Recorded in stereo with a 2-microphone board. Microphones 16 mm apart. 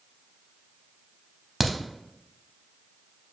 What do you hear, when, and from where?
1.6 s a crack: 5° right (ahead or behind), 0.5 m